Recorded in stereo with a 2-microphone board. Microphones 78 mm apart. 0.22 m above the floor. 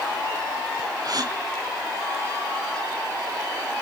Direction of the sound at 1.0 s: 55° right (ahead or behind).